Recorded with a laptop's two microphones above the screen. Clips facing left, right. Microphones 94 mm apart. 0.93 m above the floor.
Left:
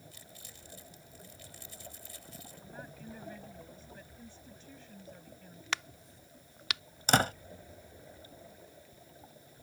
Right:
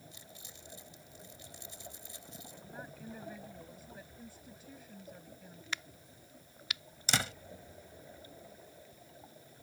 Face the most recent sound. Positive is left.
turn(degrees=45)  # may be behind; listen again after turning